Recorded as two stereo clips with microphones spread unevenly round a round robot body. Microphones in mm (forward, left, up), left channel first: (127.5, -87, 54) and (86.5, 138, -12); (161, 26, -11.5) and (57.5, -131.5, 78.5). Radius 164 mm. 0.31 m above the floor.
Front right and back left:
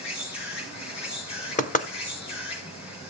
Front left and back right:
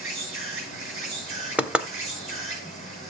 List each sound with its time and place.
0.0 s an insect: 120° right, 7 m
1.6 s knocking: 20° right, 1.1 m